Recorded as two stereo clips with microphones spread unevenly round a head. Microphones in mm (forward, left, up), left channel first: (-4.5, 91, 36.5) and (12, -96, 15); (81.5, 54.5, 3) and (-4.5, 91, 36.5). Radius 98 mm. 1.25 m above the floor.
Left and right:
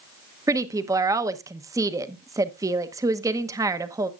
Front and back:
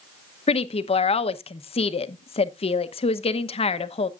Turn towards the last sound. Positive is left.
turn(degrees=-10)